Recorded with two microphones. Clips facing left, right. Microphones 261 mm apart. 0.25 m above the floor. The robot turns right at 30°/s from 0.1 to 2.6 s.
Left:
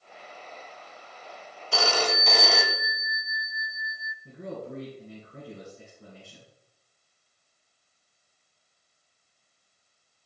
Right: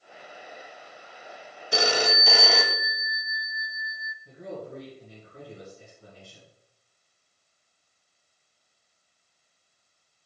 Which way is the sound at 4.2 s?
65° left (ahead or behind).